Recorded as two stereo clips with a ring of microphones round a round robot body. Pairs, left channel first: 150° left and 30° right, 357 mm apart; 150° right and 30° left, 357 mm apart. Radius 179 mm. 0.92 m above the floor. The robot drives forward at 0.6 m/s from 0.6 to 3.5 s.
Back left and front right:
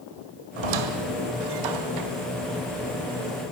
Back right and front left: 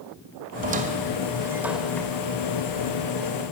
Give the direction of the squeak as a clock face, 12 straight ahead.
1 o'clock.